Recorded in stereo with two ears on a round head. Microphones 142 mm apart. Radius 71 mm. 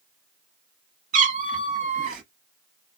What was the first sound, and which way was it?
A cat meowing, 50° right (ahead or behind).